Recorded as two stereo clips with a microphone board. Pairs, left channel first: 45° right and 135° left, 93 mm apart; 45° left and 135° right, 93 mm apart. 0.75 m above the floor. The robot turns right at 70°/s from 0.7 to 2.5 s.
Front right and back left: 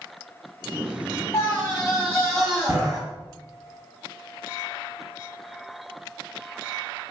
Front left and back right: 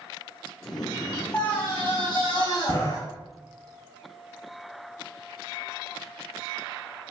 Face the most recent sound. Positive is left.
turn(degrees=70)